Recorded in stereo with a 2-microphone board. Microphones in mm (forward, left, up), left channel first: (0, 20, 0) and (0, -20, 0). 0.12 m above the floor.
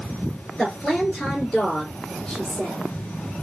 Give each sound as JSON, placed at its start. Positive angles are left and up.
{"t": 0.6, "sound": "a woman speaking", "side_deg": 10, "distance_m": 1.9}